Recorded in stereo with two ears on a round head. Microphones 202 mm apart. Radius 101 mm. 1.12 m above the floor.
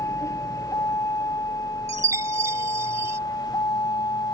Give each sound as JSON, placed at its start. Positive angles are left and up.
{"t": 0.0, "sound": "a vehicle", "side_deg": 15}
{"t": 1.9, "sound": "a chime", "side_deg": -15}